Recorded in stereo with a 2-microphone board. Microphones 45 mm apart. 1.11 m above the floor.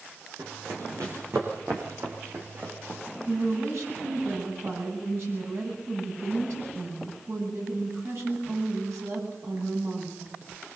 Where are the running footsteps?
80° right, 5 m; by 3.0 s 45° right (ahead or behind), 5.5 m.